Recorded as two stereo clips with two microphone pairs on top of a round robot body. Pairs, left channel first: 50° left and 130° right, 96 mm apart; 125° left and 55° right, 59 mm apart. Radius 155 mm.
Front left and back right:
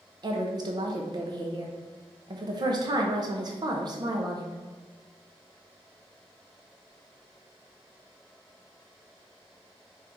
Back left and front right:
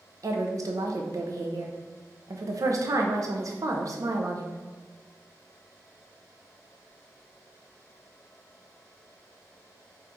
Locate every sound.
0.2 s a woman speaking: 85° right, 0.5 m